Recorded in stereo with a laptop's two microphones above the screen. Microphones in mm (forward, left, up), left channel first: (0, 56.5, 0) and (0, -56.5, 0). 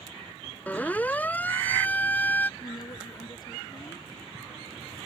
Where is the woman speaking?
35° left (ahead or behind).